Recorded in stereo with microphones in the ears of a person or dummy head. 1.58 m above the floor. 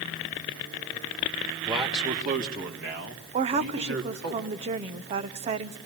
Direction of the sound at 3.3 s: 30° right (ahead or behind).